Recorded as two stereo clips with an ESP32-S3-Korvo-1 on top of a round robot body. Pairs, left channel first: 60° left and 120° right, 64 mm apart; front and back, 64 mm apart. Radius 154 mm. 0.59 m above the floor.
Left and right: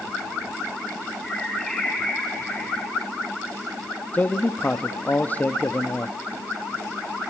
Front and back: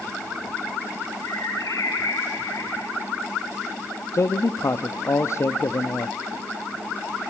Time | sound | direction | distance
1.2 | a bird | 25° right | 7 m
4.1 | a man speaking | 5° left | 1.2 m